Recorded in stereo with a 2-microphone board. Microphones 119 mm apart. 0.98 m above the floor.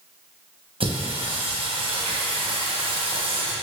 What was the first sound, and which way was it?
Singing, 50° right (ahead or behind).